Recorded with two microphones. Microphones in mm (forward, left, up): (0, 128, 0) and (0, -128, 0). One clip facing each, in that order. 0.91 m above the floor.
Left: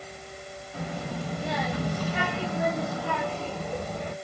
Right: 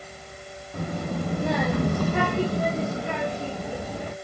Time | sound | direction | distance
0.7 | a child speaking | 45° right (ahead or behind) | 1.0 m